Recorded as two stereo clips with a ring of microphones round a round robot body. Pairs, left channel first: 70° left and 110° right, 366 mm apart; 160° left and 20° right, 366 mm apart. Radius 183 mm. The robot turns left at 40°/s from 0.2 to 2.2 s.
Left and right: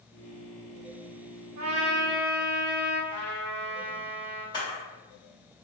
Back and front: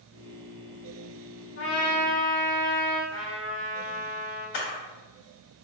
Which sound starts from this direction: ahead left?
A trumpet, at 3.1 s.